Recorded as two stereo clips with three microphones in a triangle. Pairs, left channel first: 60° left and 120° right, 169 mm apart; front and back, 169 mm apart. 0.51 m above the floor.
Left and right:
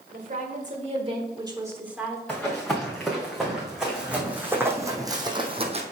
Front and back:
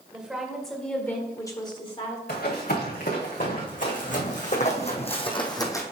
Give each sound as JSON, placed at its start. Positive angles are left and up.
{"t": 0.1, "sound": "a woman speaking", "azimuth_deg": -95, "distance_m": 1.9}
{"t": 2.3, "sound": "running footsteps", "azimuth_deg": -25, "distance_m": 3.5}